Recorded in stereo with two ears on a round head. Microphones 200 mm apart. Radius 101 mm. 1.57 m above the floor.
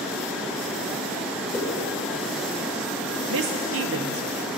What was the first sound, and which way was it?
A whoosh, 15° left (ahead or behind).